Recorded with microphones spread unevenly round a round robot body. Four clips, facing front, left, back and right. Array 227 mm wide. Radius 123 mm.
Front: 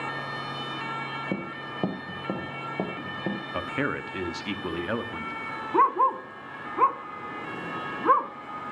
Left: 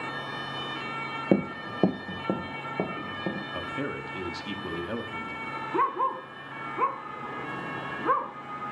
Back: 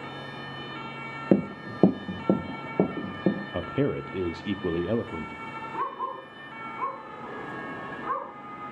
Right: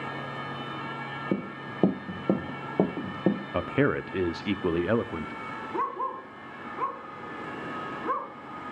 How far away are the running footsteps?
About 0.8 m.